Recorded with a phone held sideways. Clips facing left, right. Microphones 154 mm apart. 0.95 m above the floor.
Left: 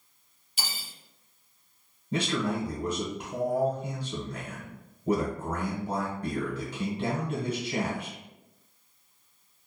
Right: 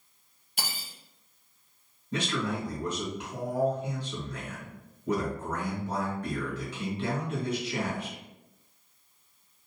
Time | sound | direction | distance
0.6 | cutlery clinking | 60° right (ahead or behind) | 0.5 m
2.1 | a man speaking | 40° left (ahead or behind) | 0.9 m